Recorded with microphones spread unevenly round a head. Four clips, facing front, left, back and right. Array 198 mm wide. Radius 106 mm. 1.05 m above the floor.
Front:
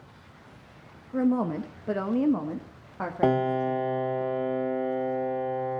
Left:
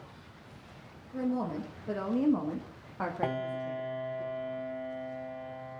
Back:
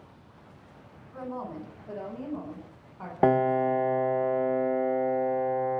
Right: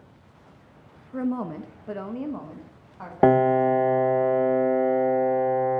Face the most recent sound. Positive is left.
turn(degrees=-95)